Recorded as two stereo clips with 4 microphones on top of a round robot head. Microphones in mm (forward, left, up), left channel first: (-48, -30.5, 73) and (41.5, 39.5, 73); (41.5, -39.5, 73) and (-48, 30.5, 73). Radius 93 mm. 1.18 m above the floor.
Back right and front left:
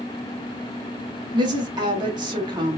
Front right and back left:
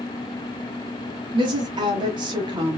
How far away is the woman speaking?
About 1.5 m.